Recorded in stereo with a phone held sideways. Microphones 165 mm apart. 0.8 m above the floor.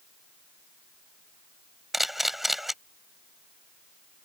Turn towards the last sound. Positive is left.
turn(degrees=0)  # may be behind; listen again after turning